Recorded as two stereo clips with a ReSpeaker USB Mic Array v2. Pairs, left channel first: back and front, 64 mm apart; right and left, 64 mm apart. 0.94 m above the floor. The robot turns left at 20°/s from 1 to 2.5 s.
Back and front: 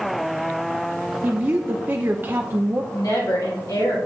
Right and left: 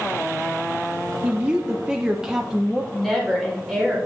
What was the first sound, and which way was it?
A woman speaking, 40° left.